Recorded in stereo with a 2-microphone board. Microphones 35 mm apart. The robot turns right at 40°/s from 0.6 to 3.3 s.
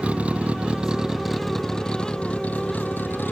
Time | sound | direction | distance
0.0 | a vehicle | 40° right (ahead or behind) | ?